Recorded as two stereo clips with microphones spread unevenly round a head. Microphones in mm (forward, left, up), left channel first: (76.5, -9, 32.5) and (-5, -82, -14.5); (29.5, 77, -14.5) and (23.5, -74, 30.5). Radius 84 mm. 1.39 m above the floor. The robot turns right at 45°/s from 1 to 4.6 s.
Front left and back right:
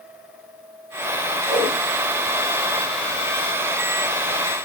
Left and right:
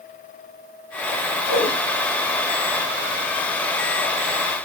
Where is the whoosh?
170° right, 0.7 m; by 1.8 s 155° right, 0.7 m.